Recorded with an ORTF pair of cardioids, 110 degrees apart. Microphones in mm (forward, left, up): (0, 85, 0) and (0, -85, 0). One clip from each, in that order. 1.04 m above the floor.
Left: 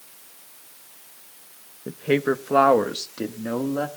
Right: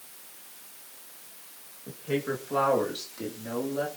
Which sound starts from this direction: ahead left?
A woman speaking, at 1.9 s.